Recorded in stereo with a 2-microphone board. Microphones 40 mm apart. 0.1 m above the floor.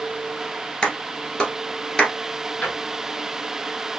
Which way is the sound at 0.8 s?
25° left (ahead or behind).